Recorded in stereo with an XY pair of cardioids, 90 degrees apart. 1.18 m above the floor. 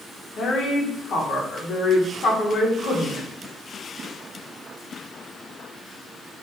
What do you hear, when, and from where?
0.4 s a woman speaking: 70° left, 1.3 m